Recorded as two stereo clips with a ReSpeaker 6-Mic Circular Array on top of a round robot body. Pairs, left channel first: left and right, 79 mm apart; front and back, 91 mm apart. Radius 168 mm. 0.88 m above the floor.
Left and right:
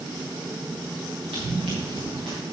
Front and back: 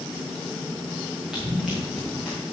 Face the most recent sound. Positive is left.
turn(degrees=-95)